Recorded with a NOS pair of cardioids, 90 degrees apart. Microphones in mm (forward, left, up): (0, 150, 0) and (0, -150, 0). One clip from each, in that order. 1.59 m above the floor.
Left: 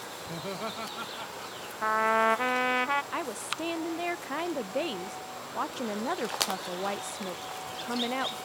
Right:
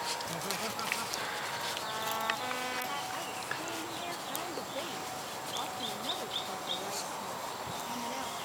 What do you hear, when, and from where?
0.3 s laughter: 30° left
1.8 s a trumpet: 65° left
3.1 s a woman speaking: 55° left